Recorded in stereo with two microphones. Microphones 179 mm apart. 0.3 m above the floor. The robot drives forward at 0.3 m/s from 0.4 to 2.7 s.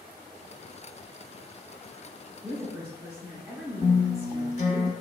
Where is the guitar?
40° left (ahead or behind), 0.7 m.